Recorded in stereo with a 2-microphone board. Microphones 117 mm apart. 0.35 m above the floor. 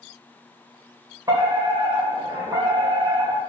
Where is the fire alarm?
35° right (ahead or behind), 2 m.